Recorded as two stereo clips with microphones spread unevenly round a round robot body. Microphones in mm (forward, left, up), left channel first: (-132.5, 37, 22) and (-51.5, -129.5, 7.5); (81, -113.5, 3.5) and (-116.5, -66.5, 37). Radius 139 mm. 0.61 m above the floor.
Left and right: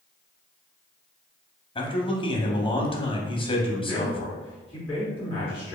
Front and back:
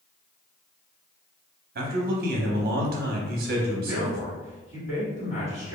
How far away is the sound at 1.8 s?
About 0.7 m.